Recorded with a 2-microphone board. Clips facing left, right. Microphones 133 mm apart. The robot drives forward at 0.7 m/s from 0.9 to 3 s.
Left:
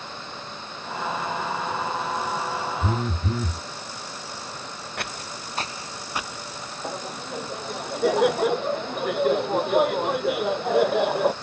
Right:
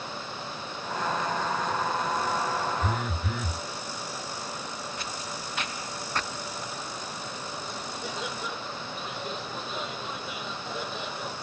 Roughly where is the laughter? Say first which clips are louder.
Left 5 dB; left.